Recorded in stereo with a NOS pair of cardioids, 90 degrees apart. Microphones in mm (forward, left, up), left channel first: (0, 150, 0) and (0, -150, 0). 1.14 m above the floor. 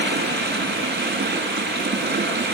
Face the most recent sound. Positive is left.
turn(degrees=-35)